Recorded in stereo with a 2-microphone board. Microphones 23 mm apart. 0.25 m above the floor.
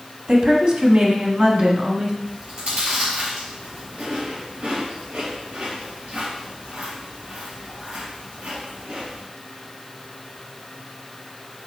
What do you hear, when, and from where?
0.3 s a woman speaking: 45° right (ahead or behind), 1.3 m; by 2.1 s 55° right (ahead or behind), 2 m
2.2 s chewing: 70° right (ahead or behind), 3.5 m